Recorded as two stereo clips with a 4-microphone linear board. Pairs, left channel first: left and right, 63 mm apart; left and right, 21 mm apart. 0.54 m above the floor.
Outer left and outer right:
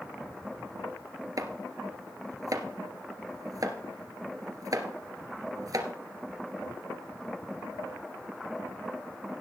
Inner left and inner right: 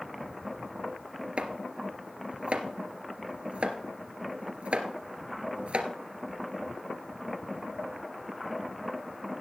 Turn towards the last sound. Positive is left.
turn(degrees=-65)  # may be behind; listen again after turning